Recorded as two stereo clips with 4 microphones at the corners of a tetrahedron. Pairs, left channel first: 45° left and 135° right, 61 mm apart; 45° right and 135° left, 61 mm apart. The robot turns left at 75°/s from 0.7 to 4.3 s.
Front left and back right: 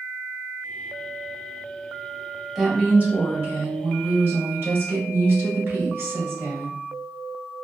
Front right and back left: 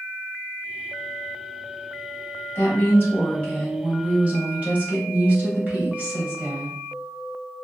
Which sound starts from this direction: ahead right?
A woman speaking, at 2.5 s.